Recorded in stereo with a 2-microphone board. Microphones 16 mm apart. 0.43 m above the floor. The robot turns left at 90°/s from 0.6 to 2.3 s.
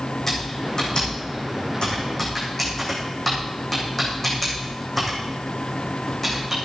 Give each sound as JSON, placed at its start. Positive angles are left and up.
{"t": 0.3, "sound": "typing on a keyboard", "side_deg": 25, "distance_m": 5.0}